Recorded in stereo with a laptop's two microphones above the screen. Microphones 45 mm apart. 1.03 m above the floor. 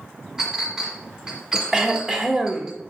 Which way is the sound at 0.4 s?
15° right (ahead or behind).